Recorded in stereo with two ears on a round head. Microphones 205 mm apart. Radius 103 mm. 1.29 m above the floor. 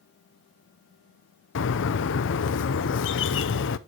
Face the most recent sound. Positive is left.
turn(degrees=55)  # may be behind; listen again after turning